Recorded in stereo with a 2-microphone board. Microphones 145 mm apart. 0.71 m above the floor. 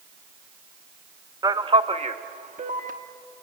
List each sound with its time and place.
1.4 s a man speaking: 25° right (ahead or behind), 0.5 m; by 2.9 s 65° right (ahead or behind), 1.1 m